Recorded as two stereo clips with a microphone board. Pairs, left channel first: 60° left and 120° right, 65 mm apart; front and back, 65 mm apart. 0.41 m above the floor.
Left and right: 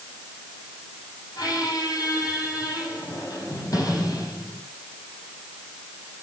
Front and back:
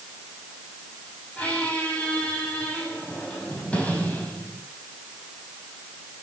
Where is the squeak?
70° left, 4 m.